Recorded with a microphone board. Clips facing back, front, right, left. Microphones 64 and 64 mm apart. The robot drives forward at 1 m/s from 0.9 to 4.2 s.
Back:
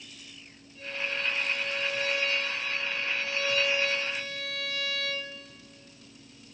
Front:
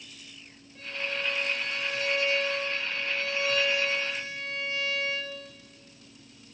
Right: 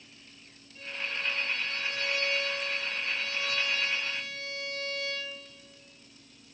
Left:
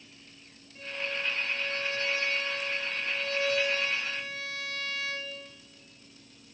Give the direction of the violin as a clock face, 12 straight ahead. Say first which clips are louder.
Even, left 1 dB; 11 o'clock.